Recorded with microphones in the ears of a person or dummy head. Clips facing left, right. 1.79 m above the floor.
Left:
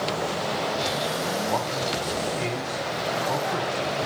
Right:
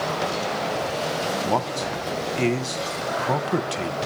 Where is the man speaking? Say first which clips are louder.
Right 2 dB; 40° right (ahead or behind), 1.1 m.